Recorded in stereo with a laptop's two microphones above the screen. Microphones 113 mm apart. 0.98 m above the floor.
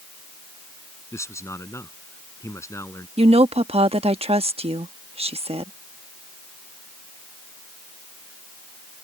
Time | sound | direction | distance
1.1 | a man speaking | 25° left (ahead or behind) | ?
3.2 | a woman speaking | 60° right (ahead or behind) | ?